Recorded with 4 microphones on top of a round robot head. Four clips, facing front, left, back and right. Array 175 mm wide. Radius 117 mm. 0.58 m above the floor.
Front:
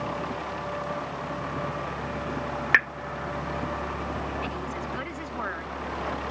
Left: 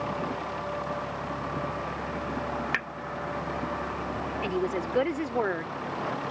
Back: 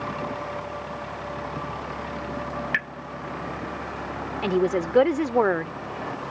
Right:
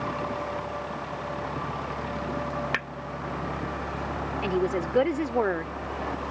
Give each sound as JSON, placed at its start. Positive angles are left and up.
{"t": 2.7, "sound": "a pop", "azimuth_deg": -20}
{"t": 4.4, "sound": "a woman speaking", "azimuth_deg": -175}